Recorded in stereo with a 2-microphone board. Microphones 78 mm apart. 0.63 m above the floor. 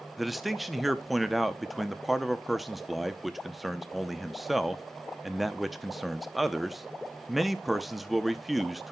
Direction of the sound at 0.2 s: Centre (ahead or behind).